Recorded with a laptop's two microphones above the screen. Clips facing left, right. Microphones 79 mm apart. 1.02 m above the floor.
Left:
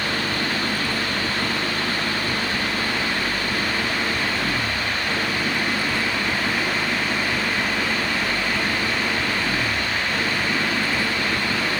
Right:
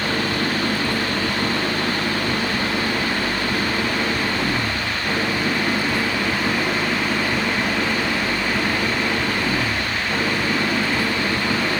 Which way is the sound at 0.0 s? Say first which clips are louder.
Right 3 dB; 20° right (ahead or behind).